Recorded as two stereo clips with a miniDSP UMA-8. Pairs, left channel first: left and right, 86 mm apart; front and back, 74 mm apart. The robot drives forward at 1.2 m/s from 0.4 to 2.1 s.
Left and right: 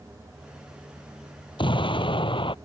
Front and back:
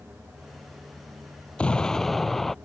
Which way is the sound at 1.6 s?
75° left.